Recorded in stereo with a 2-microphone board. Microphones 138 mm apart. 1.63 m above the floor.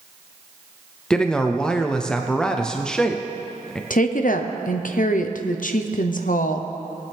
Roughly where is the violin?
No violin in this recording.